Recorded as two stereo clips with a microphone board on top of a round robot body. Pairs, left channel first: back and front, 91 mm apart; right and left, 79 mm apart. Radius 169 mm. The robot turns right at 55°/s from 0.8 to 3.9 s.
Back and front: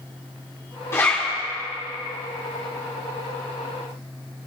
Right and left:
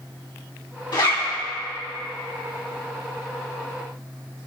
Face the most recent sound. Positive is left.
turn(degrees=45)